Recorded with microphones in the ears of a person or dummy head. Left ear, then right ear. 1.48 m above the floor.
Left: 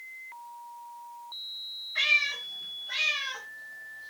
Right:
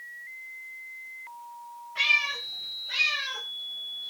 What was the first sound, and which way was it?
A cat meowing, 30° left (ahead or behind).